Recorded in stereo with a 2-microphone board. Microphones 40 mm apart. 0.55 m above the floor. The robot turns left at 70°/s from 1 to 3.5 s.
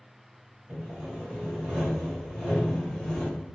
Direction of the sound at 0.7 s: 55° right.